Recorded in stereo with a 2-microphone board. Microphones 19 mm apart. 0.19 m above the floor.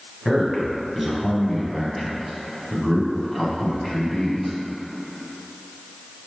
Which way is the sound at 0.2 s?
15° right (ahead or behind).